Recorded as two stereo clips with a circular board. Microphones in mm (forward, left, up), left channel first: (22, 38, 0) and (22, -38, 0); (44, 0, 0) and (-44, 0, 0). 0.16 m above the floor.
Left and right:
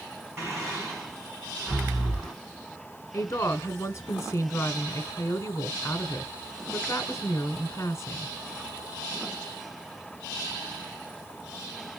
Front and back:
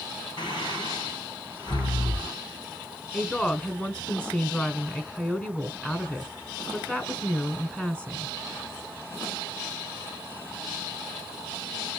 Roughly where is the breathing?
Ahead right.